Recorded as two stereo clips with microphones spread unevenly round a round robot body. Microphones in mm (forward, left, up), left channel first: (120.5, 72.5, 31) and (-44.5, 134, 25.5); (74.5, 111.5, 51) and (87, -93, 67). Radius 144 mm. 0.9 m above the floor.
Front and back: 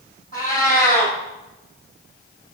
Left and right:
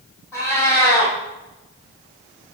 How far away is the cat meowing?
About 3.5 m.